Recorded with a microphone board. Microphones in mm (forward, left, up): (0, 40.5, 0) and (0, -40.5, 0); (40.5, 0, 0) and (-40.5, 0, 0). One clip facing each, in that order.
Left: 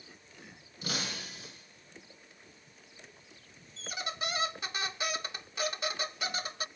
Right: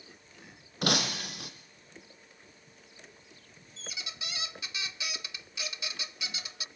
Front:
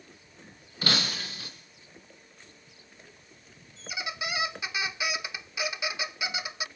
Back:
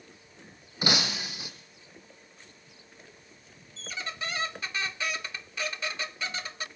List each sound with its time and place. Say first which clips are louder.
0.8 s breaking glass: right 8 dB, back 1 dB; 110° right, 4 m
3.8 s a squeak: left 7 dB, front 1 dB; 75° left, 0.6 m